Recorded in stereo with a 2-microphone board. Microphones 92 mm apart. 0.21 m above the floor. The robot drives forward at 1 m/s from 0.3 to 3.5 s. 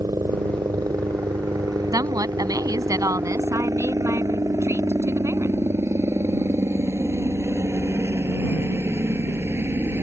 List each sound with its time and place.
0.0 s a helicopter: 40° right (ahead or behind); by 10.0 s 25° right (ahead or behind)
1.9 s a woman speaking: 40° right (ahead or behind); by 5.6 s 35° right (ahead or behind)